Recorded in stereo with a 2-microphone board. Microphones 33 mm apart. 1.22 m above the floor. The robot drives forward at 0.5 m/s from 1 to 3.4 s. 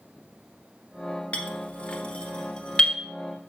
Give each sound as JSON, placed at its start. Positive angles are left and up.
{"t": 1.3, "sound": "a clink", "side_deg": 40, "distance_m": 1.0}